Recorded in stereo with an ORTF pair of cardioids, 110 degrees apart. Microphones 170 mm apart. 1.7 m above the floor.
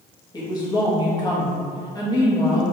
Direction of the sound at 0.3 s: 25° left.